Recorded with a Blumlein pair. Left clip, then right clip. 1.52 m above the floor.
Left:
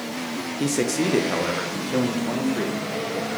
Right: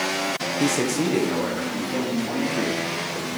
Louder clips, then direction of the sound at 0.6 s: Left 1 dB; straight ahead.